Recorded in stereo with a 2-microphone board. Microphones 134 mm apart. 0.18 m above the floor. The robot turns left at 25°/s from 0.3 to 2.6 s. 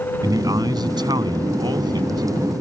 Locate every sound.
0.2 s a man speaking: 60° right; by 2.2 s 110° right